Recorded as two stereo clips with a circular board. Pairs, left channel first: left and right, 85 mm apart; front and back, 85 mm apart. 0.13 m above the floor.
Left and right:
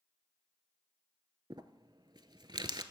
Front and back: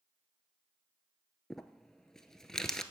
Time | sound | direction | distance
1.5 | crumpling | 85° right | 0.6 m